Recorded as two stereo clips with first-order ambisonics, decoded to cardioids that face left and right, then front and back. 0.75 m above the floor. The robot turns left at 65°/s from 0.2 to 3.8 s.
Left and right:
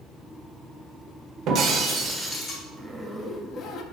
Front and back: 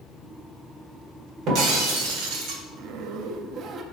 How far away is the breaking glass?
About 1.2 m.